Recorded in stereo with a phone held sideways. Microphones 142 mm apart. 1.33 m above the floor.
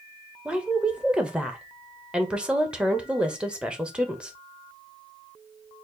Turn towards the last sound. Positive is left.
turn(degrees=-5)  # may be behind; listen again after turning